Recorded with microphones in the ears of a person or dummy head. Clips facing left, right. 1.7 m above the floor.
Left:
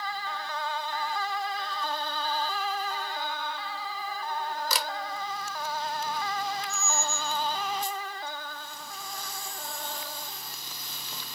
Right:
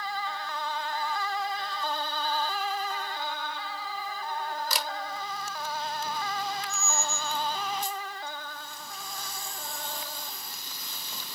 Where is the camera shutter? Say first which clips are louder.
Left 1 dB; 65° left (ahead or behind), 0.8 m.